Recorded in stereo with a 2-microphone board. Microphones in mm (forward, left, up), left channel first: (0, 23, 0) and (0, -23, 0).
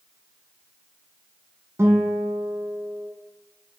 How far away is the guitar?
About 0.8 m.